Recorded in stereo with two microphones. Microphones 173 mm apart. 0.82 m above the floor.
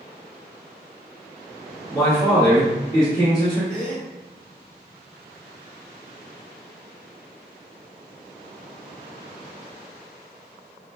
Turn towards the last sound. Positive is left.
turn(degrees=5)  # may be behind; listen again after turning